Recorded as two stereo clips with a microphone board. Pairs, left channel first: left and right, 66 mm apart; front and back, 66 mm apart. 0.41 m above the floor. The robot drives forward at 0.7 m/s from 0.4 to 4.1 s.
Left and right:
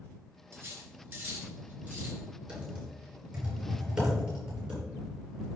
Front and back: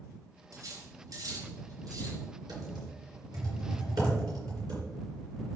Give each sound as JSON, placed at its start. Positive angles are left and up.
{"t": 0.5, "sound": "cutlery clinking", "azimuth_deg": -140, "distance_m": 3.0}
{"t": 2.5, "sound": "typing on a keyboard", "azimuth_deg": -160, "distance_m": 4.5}